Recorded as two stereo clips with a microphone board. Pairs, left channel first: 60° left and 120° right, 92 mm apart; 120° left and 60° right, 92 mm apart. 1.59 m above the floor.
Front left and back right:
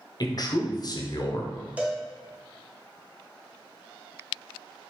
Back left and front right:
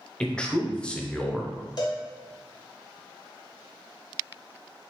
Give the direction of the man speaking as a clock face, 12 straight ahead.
11 o'clock.